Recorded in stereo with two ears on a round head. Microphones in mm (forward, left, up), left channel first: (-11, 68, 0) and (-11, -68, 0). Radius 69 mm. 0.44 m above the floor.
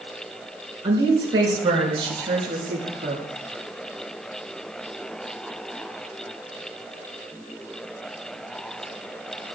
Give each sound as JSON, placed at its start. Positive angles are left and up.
{"t": 0.8, "sound": "a woman speaking", "side_deg": -25, "distance_m": 5.5}